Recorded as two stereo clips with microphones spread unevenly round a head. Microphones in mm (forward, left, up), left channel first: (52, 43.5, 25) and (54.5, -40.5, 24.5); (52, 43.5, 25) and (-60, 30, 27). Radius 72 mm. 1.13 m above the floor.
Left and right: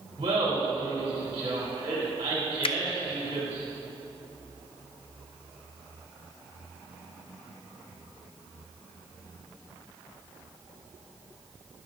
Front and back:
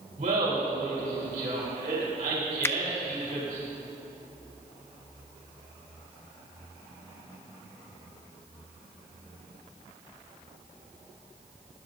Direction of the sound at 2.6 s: 75° left.